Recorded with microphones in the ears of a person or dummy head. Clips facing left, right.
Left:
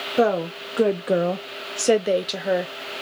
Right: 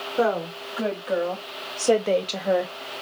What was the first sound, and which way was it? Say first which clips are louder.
A woman speaking: left 3 dB; 35° left (ahead or behind).